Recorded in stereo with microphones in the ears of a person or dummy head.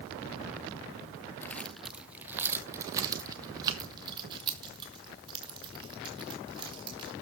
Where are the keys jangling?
10° left (ahead or behind), 0.7 m; by 7.1 s 30° right (ahead or behind), 4.5 m.